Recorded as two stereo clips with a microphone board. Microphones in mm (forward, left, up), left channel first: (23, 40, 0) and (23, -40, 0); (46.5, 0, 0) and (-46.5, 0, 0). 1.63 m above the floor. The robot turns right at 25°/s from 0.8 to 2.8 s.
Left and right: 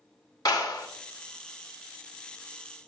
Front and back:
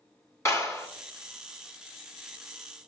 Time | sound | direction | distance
0.5 | a clap | 55° left | 2 m